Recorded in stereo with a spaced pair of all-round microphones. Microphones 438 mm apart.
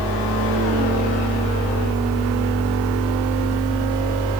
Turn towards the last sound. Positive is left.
turn(degrees=15)  # may be behind; listen again after turning